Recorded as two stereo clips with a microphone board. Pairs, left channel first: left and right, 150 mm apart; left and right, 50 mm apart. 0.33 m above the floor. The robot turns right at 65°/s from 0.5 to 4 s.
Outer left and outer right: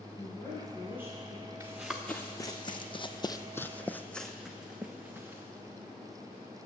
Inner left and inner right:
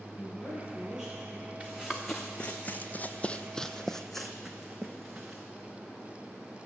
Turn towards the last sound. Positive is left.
turn(degrees=-15)  # may be behind; listen again after turning